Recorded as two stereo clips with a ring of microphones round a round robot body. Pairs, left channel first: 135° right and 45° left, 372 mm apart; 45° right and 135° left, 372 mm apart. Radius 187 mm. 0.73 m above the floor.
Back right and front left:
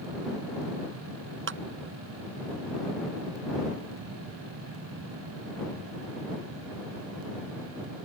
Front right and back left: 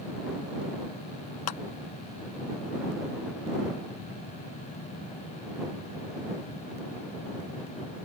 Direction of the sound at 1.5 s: 15° right.